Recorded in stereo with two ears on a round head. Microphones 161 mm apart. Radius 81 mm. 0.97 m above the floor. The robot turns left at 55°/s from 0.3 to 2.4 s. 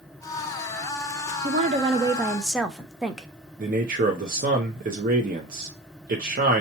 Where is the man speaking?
50° right (ahead or behind), 0.7 m.